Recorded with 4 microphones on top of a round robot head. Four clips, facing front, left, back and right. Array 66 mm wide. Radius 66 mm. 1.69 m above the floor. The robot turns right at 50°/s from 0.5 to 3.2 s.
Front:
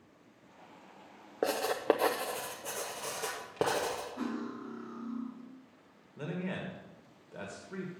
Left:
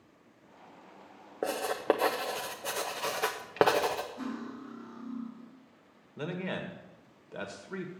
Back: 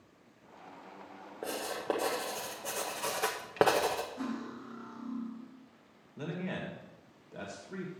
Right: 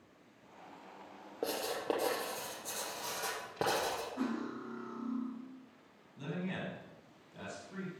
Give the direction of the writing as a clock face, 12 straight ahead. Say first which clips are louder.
Left 7 dB, front 6 dB; 11 o'clock.